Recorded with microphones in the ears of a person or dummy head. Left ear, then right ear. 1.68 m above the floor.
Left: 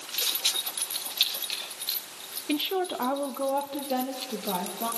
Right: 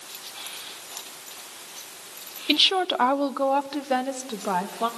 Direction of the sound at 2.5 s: 45° right (ahead or behind).